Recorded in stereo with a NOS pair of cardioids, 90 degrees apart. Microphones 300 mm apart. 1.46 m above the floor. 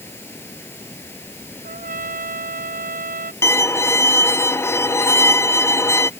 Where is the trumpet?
30° right.